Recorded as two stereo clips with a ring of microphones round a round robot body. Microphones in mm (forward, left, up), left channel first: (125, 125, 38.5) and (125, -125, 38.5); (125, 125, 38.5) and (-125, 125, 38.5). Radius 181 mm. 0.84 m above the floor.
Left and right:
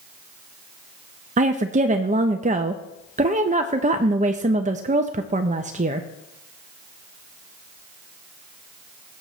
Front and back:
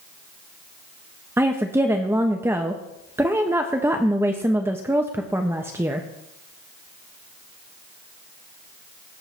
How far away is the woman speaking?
About 0.5 m.